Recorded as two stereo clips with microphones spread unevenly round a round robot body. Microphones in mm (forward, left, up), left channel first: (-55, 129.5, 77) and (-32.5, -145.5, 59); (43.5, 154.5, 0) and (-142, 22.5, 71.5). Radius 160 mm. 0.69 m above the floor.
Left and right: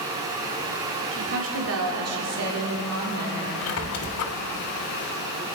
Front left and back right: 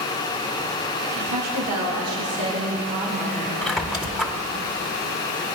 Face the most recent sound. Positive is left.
turn(degrees=130)